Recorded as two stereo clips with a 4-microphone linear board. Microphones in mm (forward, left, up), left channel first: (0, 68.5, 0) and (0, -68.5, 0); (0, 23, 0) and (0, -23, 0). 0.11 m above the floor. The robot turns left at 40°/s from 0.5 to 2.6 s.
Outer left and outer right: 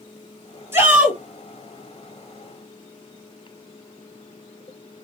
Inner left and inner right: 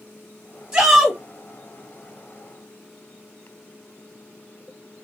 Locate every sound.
0.7 s a shout: 15° right (ahead or behind), 2.5 m; by 1.2 s centre (ahead or behind), 2.5 m